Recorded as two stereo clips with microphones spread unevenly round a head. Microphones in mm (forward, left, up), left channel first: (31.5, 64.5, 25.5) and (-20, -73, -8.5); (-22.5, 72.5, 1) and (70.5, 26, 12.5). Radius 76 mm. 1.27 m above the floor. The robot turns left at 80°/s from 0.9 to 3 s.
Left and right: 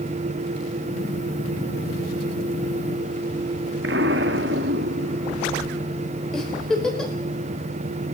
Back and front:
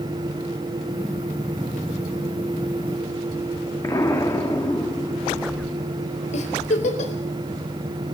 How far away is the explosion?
About 1.5 m.